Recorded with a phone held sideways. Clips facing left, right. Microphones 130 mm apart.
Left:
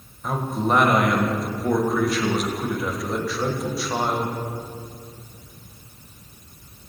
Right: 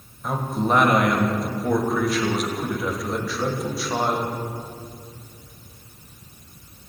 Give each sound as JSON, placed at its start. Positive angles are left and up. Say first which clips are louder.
{"t": 0.2, "sound": "a man speaking", "louder": "even", "side_deg": 0, "distance_m": 0.8}